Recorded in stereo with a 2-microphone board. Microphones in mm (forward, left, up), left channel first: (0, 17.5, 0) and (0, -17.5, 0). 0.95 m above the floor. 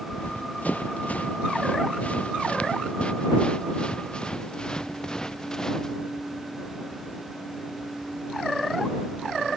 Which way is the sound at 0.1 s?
50° left (ahead or behind).